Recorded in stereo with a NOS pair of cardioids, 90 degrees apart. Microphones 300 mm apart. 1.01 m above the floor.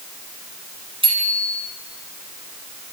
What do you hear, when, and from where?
1.0 s a bicycle bell: 15° right, 7 m